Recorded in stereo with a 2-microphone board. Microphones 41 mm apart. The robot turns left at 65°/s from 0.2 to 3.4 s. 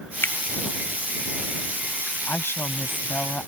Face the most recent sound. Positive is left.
turn(degrees=40)